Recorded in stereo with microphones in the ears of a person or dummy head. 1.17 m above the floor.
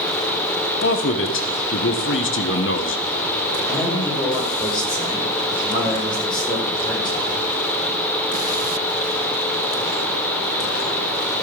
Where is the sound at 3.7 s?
25° left (ahead or behind), 6 m.